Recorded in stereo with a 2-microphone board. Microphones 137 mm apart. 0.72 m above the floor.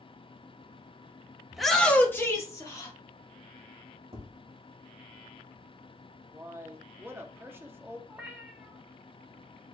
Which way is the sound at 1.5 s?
5° right (ahead or behind).